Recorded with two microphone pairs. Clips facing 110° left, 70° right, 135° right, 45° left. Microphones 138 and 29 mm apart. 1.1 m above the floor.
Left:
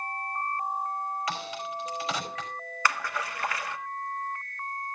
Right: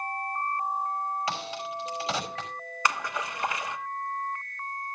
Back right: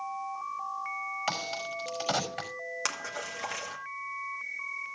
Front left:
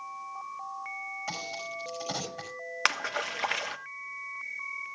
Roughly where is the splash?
Ahead.